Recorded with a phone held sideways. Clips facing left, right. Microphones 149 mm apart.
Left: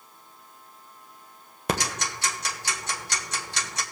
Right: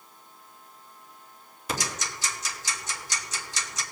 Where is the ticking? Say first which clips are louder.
Left 5 dB; 60° left (ahead or behind), 1.2 m.